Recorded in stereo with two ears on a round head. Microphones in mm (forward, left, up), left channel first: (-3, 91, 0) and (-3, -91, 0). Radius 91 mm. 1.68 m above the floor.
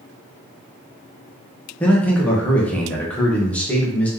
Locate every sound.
1.8 s a man speaking: 5° left (ahead or behind), 1.1 m